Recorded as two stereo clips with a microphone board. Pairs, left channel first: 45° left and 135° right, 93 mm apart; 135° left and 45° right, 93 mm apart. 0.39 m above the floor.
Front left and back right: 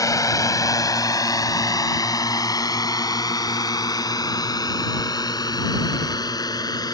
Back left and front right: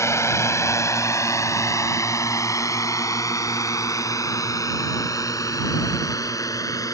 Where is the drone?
85° left.